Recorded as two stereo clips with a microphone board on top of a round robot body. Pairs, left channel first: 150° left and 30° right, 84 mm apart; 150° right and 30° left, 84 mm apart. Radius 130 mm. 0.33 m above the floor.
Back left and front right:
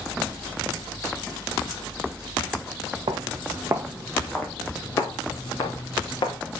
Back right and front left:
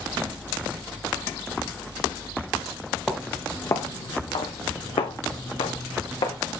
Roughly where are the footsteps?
Ahead right.